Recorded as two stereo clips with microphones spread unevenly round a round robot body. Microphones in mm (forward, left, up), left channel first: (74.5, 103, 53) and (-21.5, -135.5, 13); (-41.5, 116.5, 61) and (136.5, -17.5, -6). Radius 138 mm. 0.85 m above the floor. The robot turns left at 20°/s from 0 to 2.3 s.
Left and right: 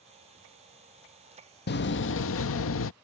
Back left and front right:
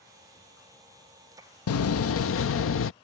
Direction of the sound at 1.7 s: 125° left.